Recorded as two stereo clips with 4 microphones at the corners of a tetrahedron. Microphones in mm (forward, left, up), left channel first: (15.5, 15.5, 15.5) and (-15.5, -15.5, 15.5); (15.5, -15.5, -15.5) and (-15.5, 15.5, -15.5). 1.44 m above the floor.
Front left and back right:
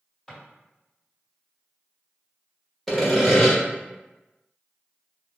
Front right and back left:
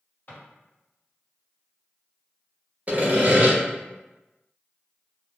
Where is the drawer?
35° right, 1.9 m.